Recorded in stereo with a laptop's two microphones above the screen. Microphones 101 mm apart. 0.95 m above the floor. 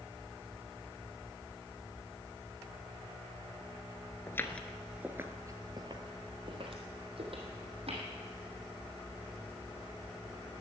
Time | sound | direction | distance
4.3 | footsteps | 25° left (ahead or behind) | 1.0 m